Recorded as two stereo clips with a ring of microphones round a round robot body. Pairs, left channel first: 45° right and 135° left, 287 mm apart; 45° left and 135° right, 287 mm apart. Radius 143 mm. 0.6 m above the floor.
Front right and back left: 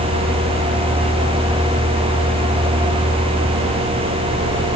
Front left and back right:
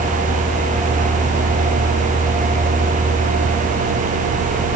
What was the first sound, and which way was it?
Only background noise.